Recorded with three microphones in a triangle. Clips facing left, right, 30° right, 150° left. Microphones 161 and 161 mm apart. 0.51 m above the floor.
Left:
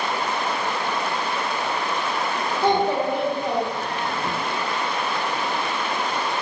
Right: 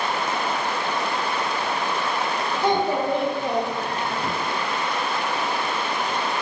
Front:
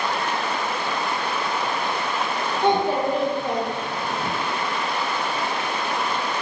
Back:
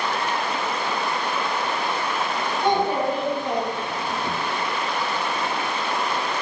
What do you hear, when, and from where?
2.6 s a child speaking: 35° left, 1.3 m; by 4.3 s 65° right, 1.1 m